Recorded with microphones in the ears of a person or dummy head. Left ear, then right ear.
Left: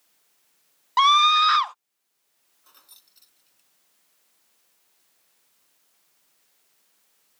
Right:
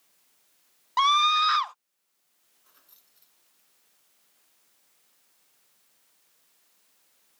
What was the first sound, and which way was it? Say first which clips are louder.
A scream: left 4 dB; 15° left (ahead or behind).